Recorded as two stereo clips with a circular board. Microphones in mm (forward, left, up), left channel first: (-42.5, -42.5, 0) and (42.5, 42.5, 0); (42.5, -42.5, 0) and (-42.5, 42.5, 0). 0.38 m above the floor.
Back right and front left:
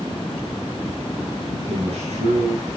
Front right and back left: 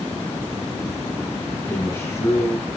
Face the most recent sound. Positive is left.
turn(degrees=20)